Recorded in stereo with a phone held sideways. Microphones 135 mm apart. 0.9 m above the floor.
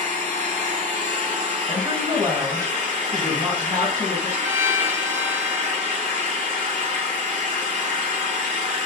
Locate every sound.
0.0 s an engine running: 70° right (ahead or behind), 6 m
1.7 s a woman speaking: 30° right (ahead or behind), 3.5 m
4.4 s a violin: 20° right (ahead or behind), 0.8 m